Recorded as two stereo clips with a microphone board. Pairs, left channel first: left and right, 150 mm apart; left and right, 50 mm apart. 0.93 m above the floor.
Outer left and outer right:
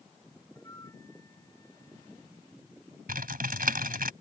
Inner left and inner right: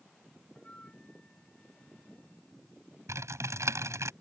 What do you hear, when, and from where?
0.6 s a flute: 25° left (ahead or behind)
3.1 s typing on a keyboard: 85° right